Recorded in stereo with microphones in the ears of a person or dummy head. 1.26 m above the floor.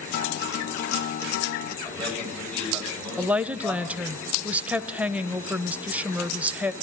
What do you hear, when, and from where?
0.1 s a guitar: 50° left (ahead or behind), 0.8 m
1.8 s a man speaking: centre (ahead or behind), 7 m
3.2 s a woman speaking: centre (ahead or behind), 0.5 m